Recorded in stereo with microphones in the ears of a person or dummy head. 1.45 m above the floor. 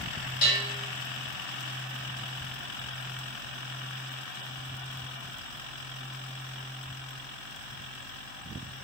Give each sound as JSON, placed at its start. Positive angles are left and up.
{"t": 0.4, "sound": "a bell", "side_deg": 55, "distance_m": 1.6}